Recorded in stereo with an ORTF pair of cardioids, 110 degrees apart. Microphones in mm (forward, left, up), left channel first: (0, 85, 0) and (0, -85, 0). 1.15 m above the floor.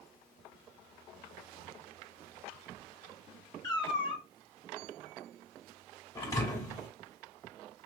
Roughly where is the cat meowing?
Ahead left.